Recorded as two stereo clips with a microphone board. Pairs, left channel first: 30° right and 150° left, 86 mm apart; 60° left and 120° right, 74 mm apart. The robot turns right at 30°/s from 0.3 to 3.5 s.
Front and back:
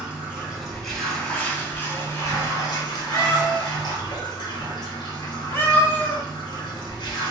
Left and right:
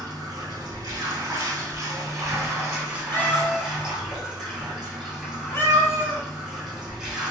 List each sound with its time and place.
0.0 s running water: 130° right, 1.8 m; by 7.3 s 35° right, 1.8 m
3.1 s a cat meowing: 10° left, 0.7 m; by 6.2 s 20° left, 0.7 m